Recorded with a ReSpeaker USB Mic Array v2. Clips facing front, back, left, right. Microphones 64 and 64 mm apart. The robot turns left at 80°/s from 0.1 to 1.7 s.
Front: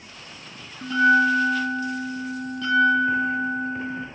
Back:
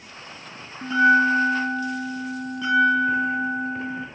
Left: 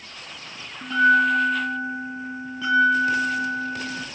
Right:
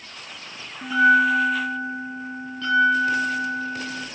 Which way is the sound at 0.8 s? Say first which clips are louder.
Back 1 dB, right 1 dB; 145° right.